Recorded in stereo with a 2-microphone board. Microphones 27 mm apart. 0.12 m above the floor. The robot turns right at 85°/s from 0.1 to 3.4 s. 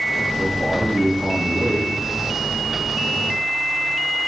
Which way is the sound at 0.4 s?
20° right.